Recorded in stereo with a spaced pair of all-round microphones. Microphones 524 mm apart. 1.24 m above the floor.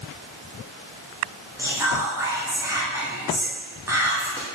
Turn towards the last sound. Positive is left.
turn(degrees=-5)  # may be behind; listen again after turning